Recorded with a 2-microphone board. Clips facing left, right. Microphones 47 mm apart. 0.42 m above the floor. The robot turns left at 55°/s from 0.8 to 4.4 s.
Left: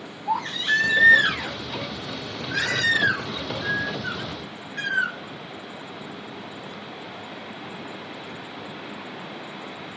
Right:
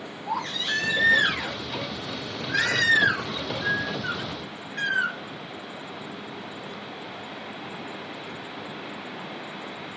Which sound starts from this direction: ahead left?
A baby crying, at 0.2 s.